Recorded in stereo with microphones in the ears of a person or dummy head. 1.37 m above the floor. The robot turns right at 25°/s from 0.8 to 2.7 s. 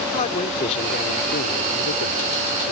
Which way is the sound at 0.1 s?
35° left.